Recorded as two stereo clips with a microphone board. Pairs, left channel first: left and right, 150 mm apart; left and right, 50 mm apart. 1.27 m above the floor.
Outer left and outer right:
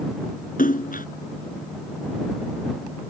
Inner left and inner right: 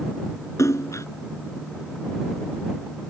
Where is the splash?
70° left (ahead or behind).